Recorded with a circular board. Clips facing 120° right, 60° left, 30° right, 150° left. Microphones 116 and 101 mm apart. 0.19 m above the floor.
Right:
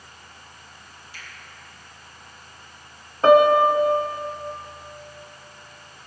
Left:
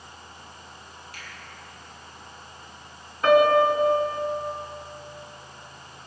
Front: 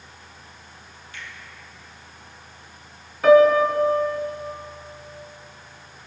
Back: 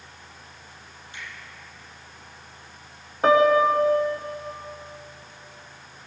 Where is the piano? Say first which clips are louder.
Right 3 dB, front 4 dB; 170° right, 1.1 m.